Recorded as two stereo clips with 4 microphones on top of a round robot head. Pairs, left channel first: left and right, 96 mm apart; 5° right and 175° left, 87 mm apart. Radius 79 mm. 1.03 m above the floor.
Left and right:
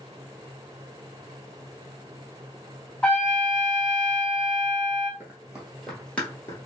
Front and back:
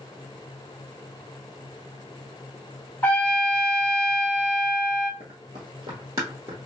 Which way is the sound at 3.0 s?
25° left.